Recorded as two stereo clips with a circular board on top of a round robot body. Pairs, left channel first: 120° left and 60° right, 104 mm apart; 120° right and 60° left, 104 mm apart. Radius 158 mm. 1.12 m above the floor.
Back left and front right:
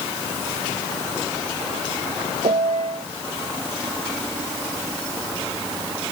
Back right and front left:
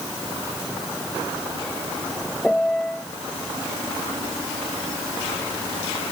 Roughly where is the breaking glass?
No breaking glass in this recording.